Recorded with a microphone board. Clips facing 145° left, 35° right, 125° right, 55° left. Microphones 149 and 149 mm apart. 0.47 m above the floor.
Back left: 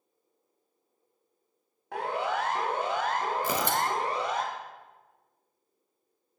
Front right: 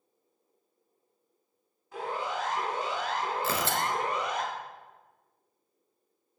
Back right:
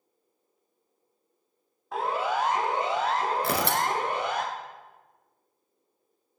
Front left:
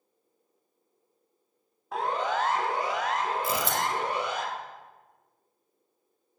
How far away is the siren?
About 3.5 m.